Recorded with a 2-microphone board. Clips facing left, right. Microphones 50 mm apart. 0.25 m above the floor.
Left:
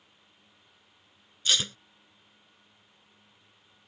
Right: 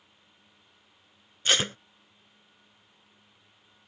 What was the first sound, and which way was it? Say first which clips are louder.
Tape being pulled: right 3 dB; 45° right (ahead or behind).